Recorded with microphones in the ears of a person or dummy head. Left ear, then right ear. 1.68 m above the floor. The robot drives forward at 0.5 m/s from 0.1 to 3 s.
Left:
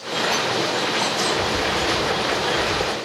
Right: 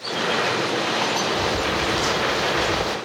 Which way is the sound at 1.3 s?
15° right (ahead or behind).